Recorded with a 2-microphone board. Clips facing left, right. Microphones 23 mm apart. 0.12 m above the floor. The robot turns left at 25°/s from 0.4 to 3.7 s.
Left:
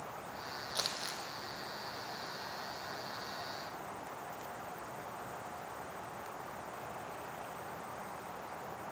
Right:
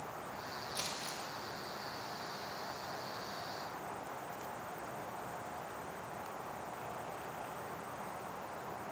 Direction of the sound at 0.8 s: 75° left (ahead or behind).